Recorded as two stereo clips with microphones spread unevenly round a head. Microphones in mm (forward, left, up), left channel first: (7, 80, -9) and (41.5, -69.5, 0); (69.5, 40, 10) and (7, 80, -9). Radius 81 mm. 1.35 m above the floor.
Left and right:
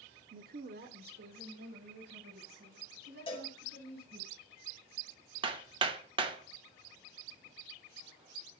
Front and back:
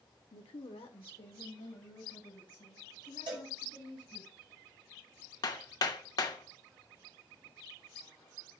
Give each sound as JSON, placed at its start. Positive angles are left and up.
{"t": 0.3, "sound": "a woman speaking", "azimuth_deg": -50, "distance_m": 0.6}
{"t": 3.3, "sound": "a cowbell", "azimuth_deg": 160, "distance_m": 1.8}
{"t": 5.4, "sound": "hammering", "azimuth_deg": -20, "distance_m": 0.8}